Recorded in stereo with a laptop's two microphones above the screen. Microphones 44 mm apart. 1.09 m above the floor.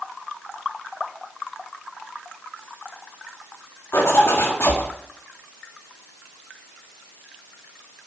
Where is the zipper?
75° left (ahead or behind), 1.8 m.